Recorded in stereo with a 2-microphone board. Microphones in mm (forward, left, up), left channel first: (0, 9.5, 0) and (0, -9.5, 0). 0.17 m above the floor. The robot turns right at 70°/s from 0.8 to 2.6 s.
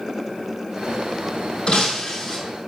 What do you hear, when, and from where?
1.7 s breaking glass: 115° left, 3 m; by 2.4 s 170° left, 3 m